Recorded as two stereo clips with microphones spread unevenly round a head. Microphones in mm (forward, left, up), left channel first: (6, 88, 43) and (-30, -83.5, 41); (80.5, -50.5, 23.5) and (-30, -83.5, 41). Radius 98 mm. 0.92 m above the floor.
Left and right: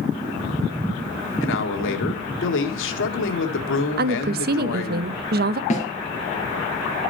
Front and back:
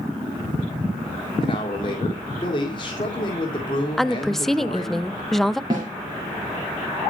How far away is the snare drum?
About 3 m.